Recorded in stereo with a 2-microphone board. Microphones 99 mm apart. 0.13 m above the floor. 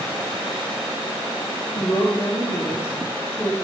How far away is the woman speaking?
About 3.5 m.